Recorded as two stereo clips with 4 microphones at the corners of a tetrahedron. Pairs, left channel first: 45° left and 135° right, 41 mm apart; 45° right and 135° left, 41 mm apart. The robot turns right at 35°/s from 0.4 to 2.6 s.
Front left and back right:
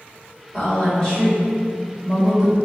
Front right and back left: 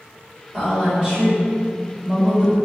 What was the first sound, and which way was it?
A woman speaking, 80° left.